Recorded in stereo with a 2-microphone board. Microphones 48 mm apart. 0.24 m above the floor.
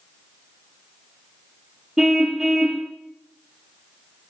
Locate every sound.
2.0 s a car horn: 10° right (ahead or behind), 2.5 m